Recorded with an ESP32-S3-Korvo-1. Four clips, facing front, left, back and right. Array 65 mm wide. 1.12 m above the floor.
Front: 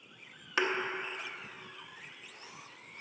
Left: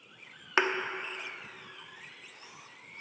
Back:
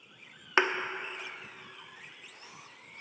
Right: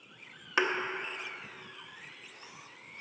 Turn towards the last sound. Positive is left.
turn(degrees=150)